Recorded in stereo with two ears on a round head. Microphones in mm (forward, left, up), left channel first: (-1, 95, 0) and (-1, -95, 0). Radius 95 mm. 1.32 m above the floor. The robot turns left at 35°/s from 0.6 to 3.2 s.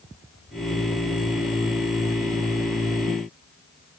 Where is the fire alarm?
No fire alarm in this recording.